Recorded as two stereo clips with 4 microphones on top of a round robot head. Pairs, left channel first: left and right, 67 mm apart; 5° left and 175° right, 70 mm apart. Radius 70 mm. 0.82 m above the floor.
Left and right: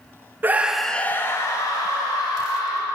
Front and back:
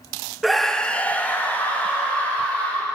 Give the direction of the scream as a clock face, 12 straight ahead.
3 o'clock.